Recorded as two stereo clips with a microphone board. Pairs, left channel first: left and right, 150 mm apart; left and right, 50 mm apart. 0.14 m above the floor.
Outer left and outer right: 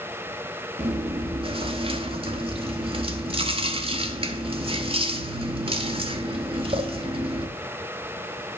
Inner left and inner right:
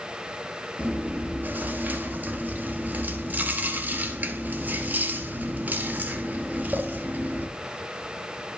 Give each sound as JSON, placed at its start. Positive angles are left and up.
{"t": 0.8, "sound": "chewing", "side_deg": -40, "distance_m": 0.7}